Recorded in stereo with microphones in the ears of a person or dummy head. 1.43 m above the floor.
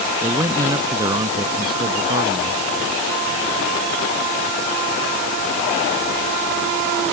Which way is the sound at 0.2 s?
15° right (ahead or behind).